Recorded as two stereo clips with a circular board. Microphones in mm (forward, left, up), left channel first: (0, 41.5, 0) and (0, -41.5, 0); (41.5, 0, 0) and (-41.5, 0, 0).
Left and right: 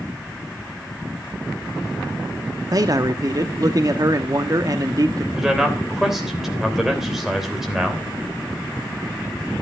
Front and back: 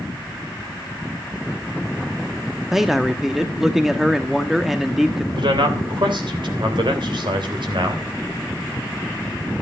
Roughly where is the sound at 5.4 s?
Behind.